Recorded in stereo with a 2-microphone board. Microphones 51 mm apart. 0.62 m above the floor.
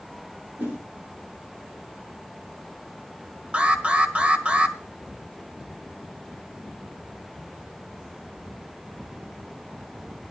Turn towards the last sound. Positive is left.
turn(degrees=-25)  # may be behind; listen again after turning